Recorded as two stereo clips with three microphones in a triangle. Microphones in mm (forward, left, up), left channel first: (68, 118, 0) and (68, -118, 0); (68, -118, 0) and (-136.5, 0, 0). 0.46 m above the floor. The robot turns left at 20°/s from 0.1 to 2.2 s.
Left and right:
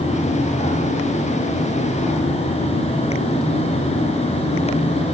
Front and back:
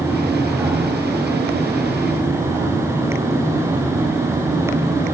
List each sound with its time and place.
Only background noise.